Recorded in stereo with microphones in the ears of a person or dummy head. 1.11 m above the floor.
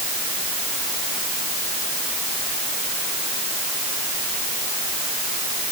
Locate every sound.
Only background noise.